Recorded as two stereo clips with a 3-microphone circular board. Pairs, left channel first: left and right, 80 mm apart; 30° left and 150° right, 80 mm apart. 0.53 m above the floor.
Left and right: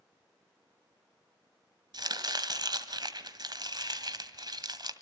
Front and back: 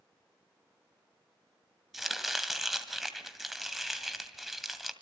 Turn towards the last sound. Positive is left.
turn(degrees=-60)